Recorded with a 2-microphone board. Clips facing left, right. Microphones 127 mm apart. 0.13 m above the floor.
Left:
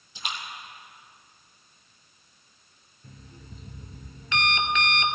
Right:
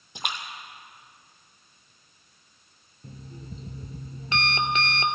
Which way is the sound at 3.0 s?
35° right (ahead or behind).